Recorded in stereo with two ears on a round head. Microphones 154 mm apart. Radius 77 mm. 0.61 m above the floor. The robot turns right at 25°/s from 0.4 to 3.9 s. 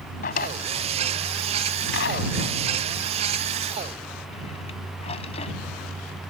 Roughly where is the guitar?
I don't hear a guitar.